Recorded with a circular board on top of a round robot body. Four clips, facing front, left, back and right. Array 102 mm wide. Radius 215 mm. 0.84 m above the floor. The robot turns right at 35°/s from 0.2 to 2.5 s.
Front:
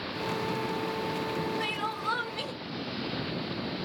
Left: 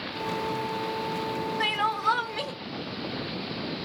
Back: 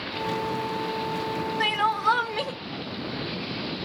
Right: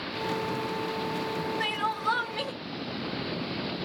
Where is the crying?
145° left, 0.9 m; by 2.5 s straight behind, 0.9 m.